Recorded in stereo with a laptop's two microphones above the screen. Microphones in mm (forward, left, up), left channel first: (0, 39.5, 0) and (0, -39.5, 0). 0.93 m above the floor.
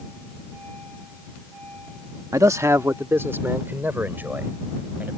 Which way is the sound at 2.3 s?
45° right (ahead or behind).